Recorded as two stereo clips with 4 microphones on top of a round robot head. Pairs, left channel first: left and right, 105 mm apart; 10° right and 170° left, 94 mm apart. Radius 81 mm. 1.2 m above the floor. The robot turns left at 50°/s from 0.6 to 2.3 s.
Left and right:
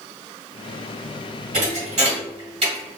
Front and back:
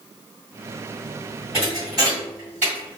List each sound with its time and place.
1.5 s a thud: 75° right, 1.7 m; by 3.0 s 115° right, 1.7 m